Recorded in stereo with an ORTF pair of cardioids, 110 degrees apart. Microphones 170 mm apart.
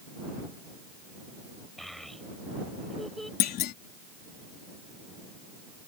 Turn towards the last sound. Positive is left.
turn(degrees=65)